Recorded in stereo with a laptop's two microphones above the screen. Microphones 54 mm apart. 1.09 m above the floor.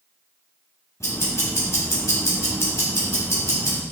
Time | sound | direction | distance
1.0 | ticking | 70° left (ahead or behind) | 2.5 m